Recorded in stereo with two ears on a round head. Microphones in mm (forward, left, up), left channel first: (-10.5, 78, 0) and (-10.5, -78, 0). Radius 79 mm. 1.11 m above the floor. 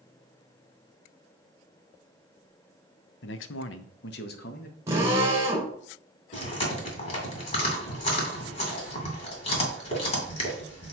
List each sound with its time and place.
3.2 s a man speaking: 65° left (ahead or behind), 0.6 m; by 4.8 s 55° left (ahead or behind), 1.2 m
4.9 s a drill: 15° right (ahead or behind), 2 m
6.3 s chewing: 35° left (ahead or behind), 2 m